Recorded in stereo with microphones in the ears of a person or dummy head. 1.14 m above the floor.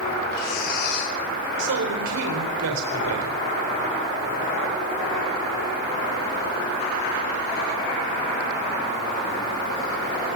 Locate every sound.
0.3 s breathing: 55° left (ahead or behind), 5 m
1.6 s a man speaking: 90° right, 4 m